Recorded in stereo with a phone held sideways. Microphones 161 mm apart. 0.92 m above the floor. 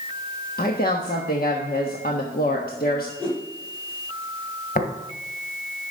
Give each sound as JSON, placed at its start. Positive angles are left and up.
{"t": 0.6, "sound": "a woman speaking", "side_deg": 70, "distance_m": 1.1}
{"t": 3.2, "sound": "a whoosh", "side_deg": 10, "distance_m": 5.0}
{"t": 4.8, "sound": "tapping", "side_deg": 60, "distance_m": 1.9}